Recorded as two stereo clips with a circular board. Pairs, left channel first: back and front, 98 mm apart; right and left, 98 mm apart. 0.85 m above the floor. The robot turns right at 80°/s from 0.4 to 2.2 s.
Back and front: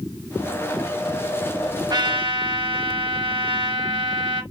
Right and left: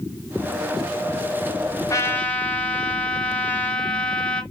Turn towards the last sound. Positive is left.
turn(degrees=-15)